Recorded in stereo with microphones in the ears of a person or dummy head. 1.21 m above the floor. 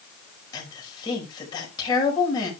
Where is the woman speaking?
25° left (ahead or behind), 5.5 m.